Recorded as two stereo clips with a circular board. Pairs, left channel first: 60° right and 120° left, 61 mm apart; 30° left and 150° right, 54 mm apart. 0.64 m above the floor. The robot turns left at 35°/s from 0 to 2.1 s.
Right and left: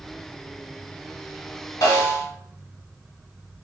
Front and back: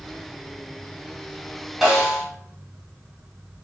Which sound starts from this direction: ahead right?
A snare drum, at 1.8 s.